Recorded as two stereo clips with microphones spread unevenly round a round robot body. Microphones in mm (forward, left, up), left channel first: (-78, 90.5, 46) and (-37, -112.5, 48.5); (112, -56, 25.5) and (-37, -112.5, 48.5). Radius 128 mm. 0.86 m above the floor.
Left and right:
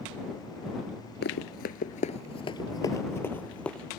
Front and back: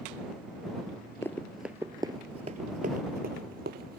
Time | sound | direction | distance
1.2 | running footsteps | 105° left | ?